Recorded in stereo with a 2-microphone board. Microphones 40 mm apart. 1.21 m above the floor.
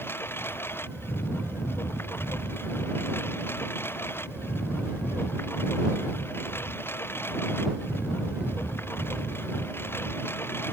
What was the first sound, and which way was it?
A lawn mower, 80° left.